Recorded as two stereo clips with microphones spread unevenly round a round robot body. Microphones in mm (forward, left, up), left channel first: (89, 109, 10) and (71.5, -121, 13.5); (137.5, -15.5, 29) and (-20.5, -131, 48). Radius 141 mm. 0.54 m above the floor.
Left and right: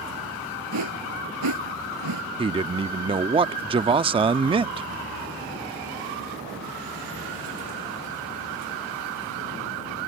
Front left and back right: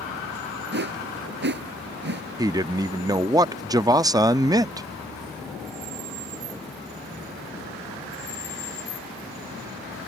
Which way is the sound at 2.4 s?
90° right.